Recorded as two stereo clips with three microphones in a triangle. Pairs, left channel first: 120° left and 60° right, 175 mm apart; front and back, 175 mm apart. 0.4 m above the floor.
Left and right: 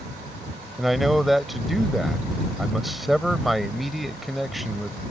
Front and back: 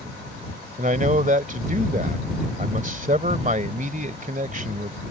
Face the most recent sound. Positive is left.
turn(degrees=-150)